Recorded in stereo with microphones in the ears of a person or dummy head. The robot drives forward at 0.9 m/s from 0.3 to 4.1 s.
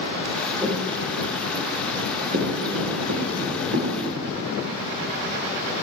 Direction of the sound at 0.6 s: 20° right (ahead or behind).